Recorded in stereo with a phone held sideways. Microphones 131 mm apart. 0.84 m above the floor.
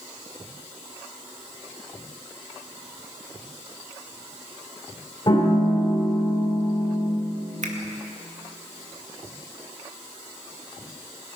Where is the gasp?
I don't hear a gasp.